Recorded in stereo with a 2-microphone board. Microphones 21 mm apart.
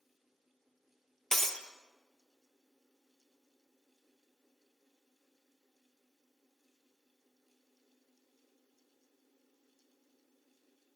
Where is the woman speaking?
I don't hear a woman speaking.